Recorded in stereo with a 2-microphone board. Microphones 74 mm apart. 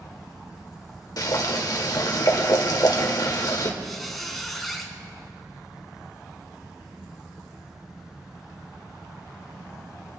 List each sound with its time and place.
1.2 s boiling: 60° left (ahead or behind), 1.5 m
3.8 s a squeak: centre (ahead or behind), 1.7 m